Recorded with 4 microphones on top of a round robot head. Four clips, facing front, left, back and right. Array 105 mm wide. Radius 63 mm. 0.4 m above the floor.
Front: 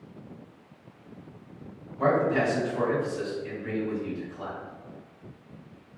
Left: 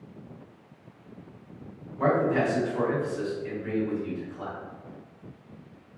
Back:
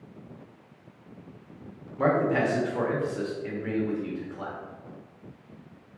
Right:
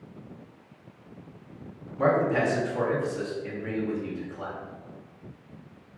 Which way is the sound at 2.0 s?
155° right.